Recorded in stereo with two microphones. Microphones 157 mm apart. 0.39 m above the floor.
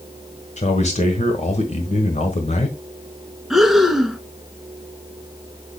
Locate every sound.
0.6 s a man speaking: 50° left (ahead or behind), 1.3 m
3.5 s breathing: centre (ahead or behind), 1.0 m